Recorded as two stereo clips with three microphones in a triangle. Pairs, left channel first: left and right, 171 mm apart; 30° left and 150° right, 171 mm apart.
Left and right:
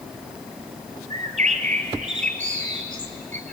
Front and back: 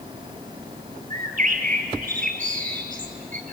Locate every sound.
1.1 s a bird: 120° right, 2.5 m